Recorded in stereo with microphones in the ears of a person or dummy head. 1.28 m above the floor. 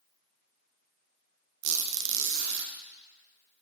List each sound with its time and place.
1.6 s a squeak: 60° right (ahead or behind), 0.7 m